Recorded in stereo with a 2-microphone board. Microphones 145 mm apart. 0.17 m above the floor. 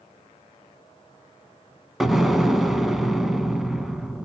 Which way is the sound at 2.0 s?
Centre (ahead or behind).